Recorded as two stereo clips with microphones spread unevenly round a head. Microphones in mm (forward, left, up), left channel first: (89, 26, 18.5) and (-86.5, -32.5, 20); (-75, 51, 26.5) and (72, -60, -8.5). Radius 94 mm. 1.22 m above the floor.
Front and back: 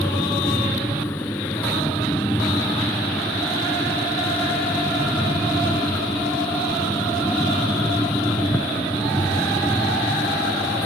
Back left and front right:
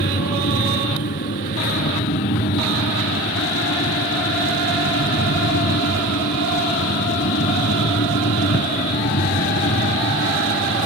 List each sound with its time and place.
0.0 s a fan: 100° left